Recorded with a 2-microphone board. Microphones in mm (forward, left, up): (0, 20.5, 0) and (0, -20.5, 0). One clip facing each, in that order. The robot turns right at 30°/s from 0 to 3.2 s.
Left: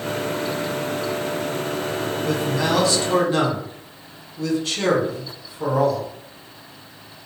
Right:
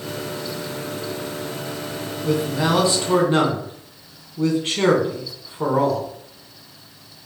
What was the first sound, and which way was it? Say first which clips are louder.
A man speaking: right 3 dB; 5° right (ahead or behind).